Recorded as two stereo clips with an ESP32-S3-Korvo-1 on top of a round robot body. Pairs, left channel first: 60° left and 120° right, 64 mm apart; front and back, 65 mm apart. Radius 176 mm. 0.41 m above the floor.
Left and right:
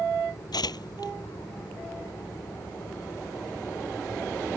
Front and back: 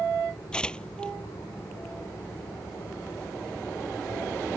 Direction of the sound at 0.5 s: 75° left.